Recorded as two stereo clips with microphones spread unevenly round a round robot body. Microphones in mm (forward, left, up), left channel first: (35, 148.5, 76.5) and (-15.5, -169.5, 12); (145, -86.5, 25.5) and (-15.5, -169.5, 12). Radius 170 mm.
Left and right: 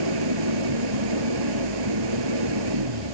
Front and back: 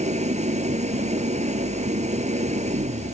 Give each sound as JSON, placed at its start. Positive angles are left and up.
{"t": 0.0, "sound": "an engine running", "azimuth_deg": -100}